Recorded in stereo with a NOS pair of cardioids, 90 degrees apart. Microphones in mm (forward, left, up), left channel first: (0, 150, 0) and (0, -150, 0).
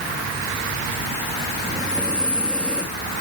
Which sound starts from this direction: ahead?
Breathing, at 1.6 s.